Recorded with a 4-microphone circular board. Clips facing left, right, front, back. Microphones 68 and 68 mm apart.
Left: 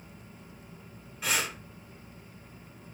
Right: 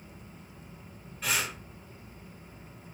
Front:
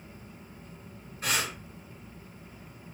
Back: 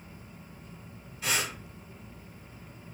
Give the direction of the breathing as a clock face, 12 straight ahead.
12 o'clock.